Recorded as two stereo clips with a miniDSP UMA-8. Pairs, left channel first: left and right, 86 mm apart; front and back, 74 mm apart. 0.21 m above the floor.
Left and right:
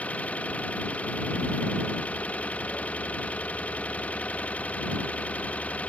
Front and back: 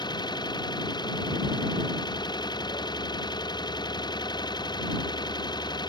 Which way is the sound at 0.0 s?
15° left.